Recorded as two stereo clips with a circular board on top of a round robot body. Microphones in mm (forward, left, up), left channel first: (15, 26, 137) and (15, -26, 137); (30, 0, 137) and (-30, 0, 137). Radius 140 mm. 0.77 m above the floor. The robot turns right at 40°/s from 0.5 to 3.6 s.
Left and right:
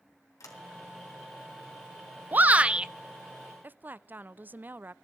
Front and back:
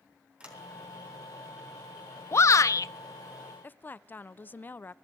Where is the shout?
35° right, 0.9 m; by 2.9 s 15° right, 0.9 m.